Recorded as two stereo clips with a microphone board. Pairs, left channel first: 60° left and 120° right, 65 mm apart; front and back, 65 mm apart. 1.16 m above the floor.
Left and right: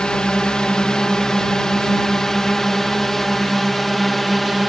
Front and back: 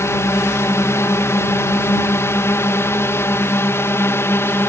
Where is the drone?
10° right; by 4.7 s 30° right.